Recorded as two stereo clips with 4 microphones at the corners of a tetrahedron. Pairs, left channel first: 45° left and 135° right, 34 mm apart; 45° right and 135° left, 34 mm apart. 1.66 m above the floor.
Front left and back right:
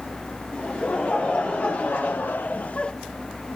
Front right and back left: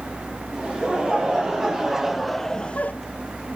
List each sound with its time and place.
0.5 s laughter: 80° left, 3.5 m; by 2.9 s 15° right, 0.8 m